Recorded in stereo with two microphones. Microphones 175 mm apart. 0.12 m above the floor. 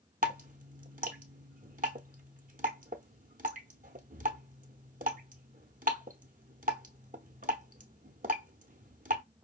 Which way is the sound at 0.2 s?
55° right (ahead or behind).